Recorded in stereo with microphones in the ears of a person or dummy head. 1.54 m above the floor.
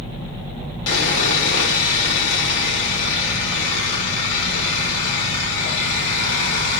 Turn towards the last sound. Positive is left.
turn(degrees=70)  # may be behind; listen again after turning